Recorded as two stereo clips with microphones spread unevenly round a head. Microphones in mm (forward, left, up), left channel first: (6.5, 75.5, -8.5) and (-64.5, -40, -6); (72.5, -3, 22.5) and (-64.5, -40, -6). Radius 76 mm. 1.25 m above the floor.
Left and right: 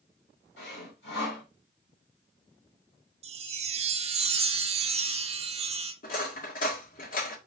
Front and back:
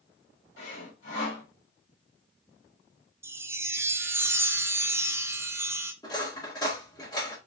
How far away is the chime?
About 0.6 m.